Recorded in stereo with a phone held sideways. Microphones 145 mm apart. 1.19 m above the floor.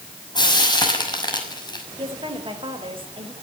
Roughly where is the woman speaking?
Right.